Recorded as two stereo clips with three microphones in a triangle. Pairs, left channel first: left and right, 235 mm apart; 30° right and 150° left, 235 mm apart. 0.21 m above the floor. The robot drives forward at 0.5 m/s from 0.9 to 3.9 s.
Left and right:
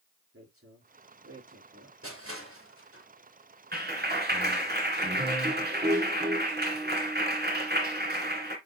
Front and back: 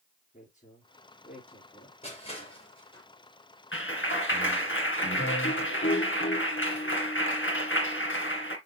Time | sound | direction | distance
0.3 | a woman speaking | 80° right | 4.5 m
2.0 | crushing | 90° right | 5 m
3.7 | a clap | 50° right | 2 m